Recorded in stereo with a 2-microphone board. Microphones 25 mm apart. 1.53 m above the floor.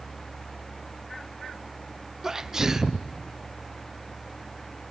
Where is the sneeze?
20° right (ahead or behind), 0.6 m.